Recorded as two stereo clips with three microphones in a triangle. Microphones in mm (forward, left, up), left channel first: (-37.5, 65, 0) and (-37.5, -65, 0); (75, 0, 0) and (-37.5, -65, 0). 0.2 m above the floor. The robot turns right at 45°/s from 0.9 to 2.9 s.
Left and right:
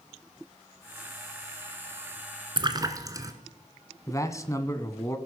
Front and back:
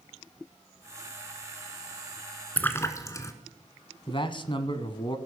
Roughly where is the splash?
Ahead right.